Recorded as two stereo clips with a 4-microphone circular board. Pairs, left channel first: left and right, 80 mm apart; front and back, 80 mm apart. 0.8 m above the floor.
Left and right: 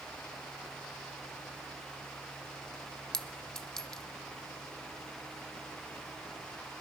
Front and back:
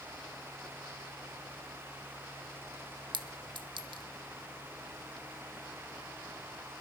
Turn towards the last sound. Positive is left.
turn(degrees=175)